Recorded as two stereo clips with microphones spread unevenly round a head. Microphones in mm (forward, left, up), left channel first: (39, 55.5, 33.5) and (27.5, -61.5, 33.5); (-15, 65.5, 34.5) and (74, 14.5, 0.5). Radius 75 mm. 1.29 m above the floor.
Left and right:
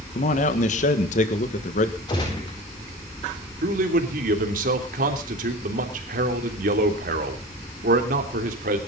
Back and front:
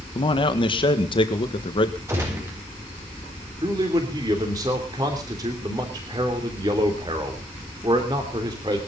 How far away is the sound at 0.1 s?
About 1.6 m.